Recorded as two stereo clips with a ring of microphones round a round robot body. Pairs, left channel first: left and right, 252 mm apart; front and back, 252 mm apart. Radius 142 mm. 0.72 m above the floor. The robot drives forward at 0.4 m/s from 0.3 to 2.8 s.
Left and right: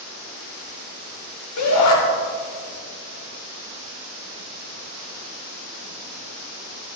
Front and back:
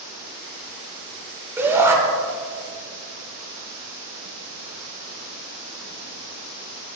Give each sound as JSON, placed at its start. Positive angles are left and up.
{"t": 1.6, "sound": "a shout", "azimuth_deg": 100, "distance_m": 5.0}